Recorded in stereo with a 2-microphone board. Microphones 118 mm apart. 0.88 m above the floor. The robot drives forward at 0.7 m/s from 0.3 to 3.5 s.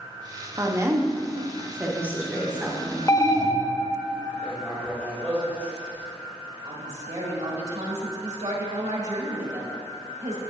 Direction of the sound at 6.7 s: 65° right (ahead or behind).